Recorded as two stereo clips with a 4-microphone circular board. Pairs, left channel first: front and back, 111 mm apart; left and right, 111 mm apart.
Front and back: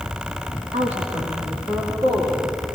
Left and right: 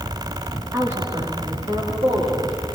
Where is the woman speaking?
165° right, 2.5 m; by 2.6 s 130° right, 4.5 m.